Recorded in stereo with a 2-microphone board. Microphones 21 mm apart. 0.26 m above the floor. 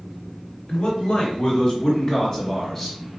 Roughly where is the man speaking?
Left.